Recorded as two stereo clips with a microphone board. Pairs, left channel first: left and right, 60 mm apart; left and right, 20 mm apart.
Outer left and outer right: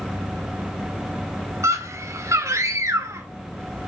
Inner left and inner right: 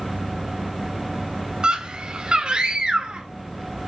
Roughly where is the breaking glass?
I don't hear breaking glass.